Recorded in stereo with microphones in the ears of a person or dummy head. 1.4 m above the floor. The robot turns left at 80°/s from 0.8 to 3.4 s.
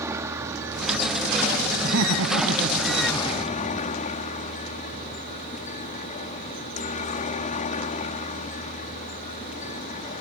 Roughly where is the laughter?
Ahead right.